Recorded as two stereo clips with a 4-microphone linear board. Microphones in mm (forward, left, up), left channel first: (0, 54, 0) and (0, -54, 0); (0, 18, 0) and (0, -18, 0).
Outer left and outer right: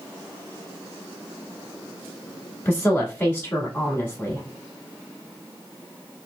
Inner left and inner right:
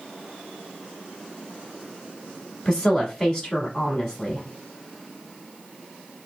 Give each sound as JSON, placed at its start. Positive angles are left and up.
{"t": 2.6, "sound": "a woman speaking", "side_deg": 20, "distance_m": 1.1}